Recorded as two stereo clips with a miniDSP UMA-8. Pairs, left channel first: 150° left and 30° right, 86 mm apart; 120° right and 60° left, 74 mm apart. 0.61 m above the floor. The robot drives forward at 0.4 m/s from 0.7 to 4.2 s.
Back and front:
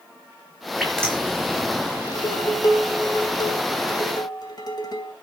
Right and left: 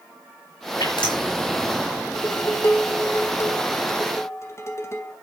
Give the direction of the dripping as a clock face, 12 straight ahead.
4 o'clock.